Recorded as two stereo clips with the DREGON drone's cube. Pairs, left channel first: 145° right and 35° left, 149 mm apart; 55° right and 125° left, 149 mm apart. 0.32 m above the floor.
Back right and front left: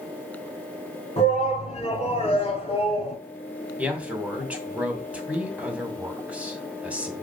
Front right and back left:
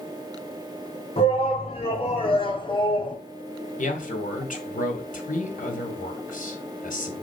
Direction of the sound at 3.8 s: 45° right.